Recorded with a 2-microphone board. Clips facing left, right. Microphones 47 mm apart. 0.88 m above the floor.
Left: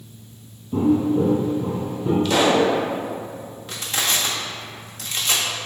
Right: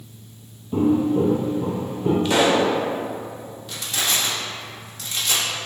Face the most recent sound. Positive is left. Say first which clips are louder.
# left 1 dB
turn(degrees=45)  # may be behind; listen again after turning